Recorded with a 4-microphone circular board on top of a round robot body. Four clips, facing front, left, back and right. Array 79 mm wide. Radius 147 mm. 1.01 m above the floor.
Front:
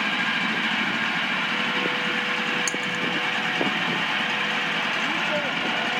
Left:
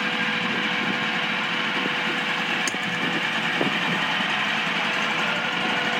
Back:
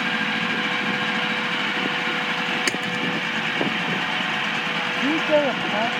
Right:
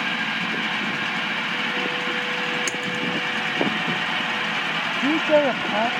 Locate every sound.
2.7 s a splash: straight behind
5.0 s a woman speaking: 115° right